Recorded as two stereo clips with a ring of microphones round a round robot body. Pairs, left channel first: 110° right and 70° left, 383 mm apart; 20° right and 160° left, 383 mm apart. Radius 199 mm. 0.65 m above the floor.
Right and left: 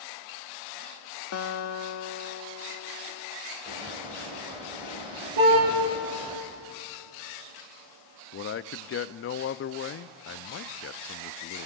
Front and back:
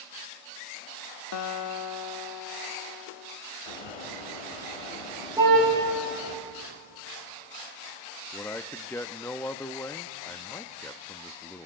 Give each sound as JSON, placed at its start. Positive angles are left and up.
{"t": 1.3, "sound": "a guitar", "azimuth_deg": -65, "distance_m": 0.8}
{"t": 3.7, "sound": "a bird", "azimuth_deg": -10, "distance_m": 3.0}
{"t": 5.4, "sound": "a car horn", "azimuth_deg": 75, "distance_m": 7.0}
{"t": 8.3, "sound": "a man speaking", "azimuth_deg": -100, "distance_m": 0.5}